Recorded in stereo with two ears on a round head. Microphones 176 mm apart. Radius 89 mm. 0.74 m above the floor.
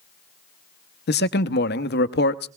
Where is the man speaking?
55° left (ahead or behind), 0.8 m.